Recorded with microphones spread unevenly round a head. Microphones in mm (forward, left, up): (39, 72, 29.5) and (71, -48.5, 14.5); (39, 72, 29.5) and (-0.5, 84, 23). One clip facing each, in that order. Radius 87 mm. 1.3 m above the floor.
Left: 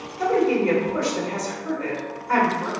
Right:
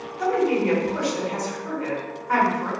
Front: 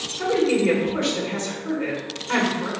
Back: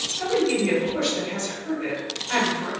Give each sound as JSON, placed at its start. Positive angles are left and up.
{"t": 0.2, "sound": "a woman speaking", "azimuth_deg": 50, "distance_m": 2.0}